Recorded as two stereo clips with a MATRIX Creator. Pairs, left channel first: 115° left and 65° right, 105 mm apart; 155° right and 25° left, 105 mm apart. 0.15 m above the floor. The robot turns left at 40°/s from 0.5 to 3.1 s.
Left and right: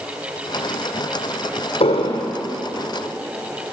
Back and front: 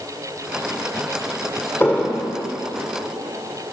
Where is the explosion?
135° left, 1.8 m; by 2.3 s 115° left, 1.8 m.